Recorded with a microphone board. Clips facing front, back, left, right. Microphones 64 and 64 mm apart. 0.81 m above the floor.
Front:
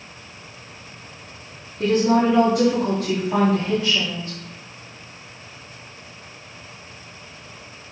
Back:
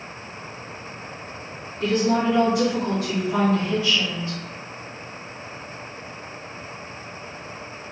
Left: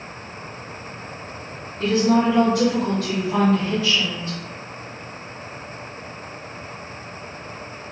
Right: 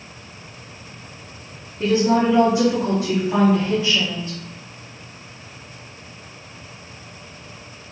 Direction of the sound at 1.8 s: 20° right.